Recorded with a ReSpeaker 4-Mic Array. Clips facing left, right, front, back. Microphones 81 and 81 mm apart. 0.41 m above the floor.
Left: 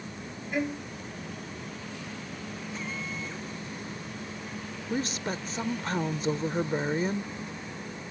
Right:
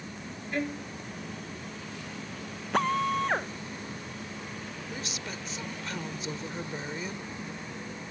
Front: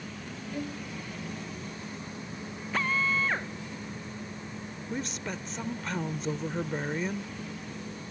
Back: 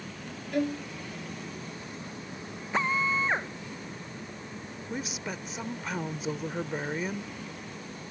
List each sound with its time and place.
0.5 s a violin: 175° left
2.7 s a drill: 110° right
4.9 s a woman speaking: 100° left